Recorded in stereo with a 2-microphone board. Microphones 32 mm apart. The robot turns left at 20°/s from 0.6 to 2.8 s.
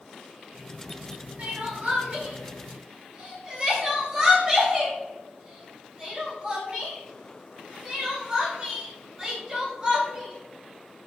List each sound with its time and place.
1.4 s crying: 55° right (ahead or behind), 2.5 m; by 11.1 s 25° right (ahead or behind), 2.5 m